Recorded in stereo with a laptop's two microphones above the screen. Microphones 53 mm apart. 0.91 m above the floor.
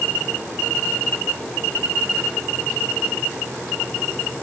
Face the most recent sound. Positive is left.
No sound to turn to.